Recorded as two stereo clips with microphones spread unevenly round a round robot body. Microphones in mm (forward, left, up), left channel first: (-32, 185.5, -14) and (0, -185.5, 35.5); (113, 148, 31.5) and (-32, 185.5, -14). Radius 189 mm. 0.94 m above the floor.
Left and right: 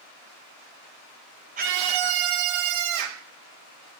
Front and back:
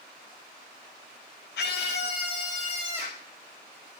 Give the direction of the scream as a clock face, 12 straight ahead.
12 o'clock.